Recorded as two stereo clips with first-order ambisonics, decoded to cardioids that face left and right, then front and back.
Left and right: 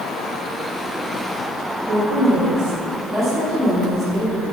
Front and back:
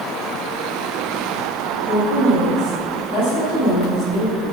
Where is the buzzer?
I don't hear a buzzer.